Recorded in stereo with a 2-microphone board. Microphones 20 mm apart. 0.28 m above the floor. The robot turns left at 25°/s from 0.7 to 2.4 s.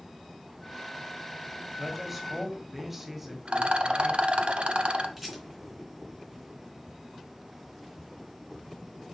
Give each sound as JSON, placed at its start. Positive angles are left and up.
{"t": 1.8, "sound": "a man speaking", "side_deg": 0, "distance_m": 1.6}
{"t": 3.5, "sound": "a rattle", "side_deg": -70, "distance_m": 0.9}
{"t": 5.2, "sound": "a rattle", "side_deg": -10, "distance_m": 3.5}